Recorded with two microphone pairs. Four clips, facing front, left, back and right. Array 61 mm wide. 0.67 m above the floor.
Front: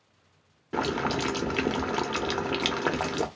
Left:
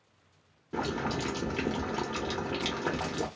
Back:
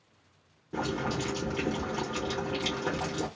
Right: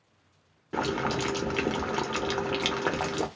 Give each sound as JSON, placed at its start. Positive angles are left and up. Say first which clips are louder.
{"t": 0.7, "sound": "boiling", "louder": "right 4 dB, front 4 dB", "azimuth_deg": -40, "distance_m": 0.6}